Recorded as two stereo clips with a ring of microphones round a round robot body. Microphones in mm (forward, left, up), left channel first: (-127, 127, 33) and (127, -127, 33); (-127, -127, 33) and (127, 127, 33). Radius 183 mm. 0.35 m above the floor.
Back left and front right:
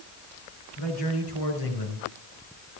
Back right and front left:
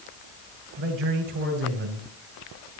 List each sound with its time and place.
0.8 s a man speaking: 100° left, 6 m; by 2.1 s 105° left, 5.5 m